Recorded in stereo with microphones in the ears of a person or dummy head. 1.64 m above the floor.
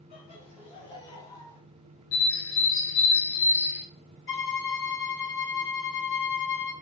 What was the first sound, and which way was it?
Laughter, 35° left (ahead or behind).